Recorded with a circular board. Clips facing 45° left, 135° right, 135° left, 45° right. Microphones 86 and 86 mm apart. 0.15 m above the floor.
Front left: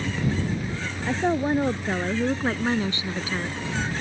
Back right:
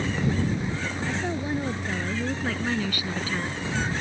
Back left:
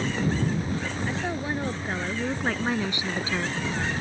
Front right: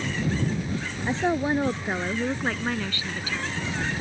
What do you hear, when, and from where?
1.1 s a woman speaking: 10° left; by 4.0 s 140° left